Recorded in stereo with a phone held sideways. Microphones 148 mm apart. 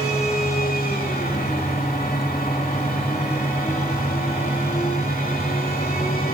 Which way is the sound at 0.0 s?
80° left.